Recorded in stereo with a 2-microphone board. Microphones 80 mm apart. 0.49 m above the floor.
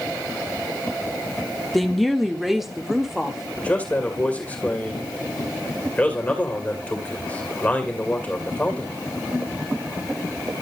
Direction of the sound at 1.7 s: Centre (ahead or behind).